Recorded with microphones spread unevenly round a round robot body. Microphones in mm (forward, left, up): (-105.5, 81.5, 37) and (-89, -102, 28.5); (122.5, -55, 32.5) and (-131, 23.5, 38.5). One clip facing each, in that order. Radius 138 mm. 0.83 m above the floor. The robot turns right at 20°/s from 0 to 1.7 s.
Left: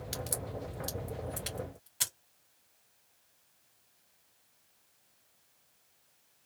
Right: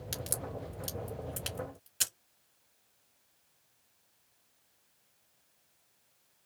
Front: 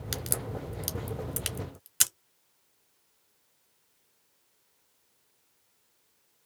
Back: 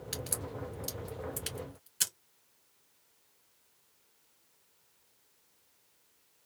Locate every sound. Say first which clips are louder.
0.1 s a crack: even, front 5 dB; 40° right, 1.3 m; by 2.1 s 10° right, 1.3 m